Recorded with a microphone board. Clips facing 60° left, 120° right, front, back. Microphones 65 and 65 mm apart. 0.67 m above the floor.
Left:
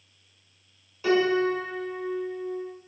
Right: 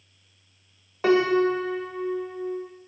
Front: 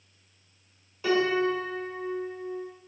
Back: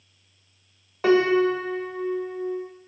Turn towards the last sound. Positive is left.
turn(degrees=-150)